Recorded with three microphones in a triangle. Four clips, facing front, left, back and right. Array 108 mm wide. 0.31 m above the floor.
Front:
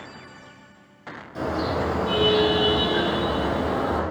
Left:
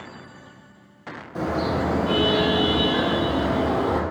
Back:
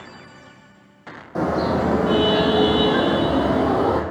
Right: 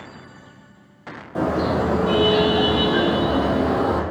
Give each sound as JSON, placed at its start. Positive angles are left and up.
{"t": 1.4, "sound": "a car horn", "azimuth_deg": -145, "distance_m": 6.0}